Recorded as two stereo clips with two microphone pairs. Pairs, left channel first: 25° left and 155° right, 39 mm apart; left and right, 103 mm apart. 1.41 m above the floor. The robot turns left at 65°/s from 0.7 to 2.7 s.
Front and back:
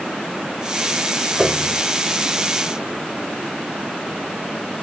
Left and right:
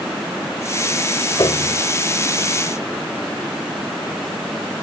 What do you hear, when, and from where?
1.4 s a piano: 135° left; by 1.8 s 110° left